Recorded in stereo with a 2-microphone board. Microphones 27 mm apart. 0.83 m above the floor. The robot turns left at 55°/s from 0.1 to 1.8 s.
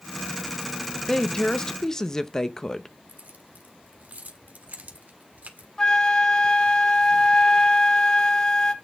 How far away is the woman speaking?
About 0.7 m.